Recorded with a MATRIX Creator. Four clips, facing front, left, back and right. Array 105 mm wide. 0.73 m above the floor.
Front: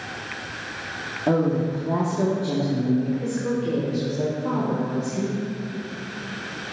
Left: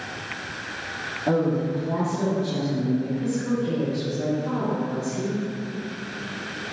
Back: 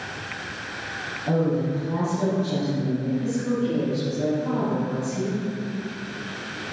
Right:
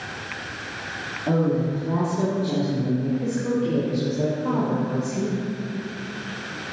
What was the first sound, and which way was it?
A woman speaking, 10° left.